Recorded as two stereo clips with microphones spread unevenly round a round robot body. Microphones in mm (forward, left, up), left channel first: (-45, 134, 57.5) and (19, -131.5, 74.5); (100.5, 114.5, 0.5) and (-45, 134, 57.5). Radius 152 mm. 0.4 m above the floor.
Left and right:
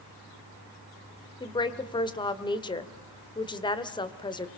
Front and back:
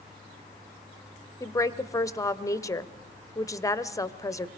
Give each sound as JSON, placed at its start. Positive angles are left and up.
{"t": 1.4, "sound": "a woman speaking", "azimuth_deg": 35, "distance_m": 1.4}